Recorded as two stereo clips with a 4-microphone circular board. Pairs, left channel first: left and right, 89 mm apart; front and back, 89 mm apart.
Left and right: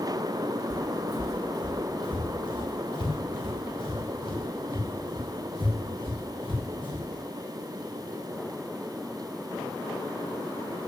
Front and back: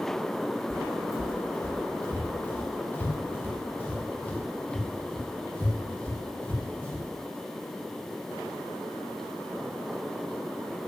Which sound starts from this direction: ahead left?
Footsteps, at 0.7 s.